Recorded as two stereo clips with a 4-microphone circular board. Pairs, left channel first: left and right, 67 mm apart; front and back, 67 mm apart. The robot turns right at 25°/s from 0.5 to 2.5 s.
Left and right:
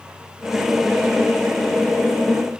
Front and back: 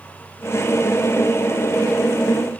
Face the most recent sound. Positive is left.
No sound to turn to.